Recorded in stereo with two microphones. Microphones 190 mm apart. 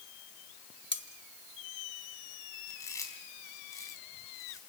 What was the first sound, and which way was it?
Cutlery clinking, 70° right (ahead or behind).